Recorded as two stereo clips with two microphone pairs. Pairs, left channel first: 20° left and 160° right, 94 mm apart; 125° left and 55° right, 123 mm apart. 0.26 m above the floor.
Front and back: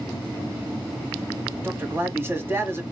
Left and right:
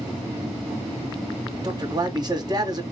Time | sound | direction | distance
1.6 | a man speaking | 100° right | 1.9 m